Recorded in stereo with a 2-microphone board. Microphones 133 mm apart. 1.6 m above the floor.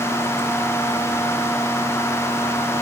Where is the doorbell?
No doorbell in this recording.